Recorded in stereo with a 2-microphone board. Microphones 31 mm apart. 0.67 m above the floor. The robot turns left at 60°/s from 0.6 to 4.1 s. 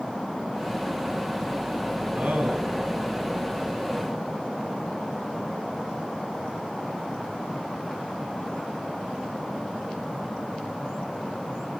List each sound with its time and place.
2.1 s a man speaking: 50° right, 5 m; by 2.7 s 80° right, 5 m